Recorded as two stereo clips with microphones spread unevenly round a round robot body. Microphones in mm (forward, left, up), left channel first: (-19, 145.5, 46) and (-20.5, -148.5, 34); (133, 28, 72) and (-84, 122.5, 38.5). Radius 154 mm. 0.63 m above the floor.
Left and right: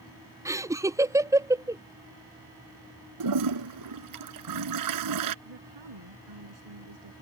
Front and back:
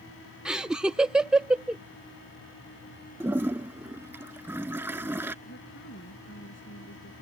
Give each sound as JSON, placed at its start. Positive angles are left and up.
{"t": 0.5, "sound": "laughter", "azimuth_deg": -145}
{"t": 3.2, "sound": "a toilet flushing", "azimuth_deg": -115}
{"t": 5.5, "sound": "a woman speaking", "azimuth_deg": -80}